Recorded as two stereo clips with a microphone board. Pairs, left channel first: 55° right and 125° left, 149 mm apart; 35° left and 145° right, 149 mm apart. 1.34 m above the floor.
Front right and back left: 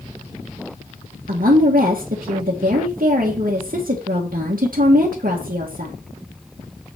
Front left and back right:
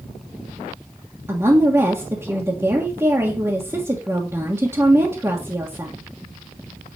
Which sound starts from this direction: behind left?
A woman speaking, at 1.3 s.